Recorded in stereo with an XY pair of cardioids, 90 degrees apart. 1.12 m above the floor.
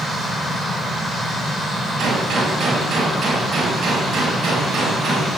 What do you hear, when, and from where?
2.0 s a gunshot: 70° right, 7.5 m